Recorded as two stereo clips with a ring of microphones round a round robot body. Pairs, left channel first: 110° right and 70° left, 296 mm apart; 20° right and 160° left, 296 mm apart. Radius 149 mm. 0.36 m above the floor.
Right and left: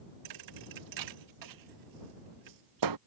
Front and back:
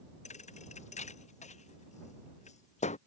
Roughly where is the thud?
Ahead left.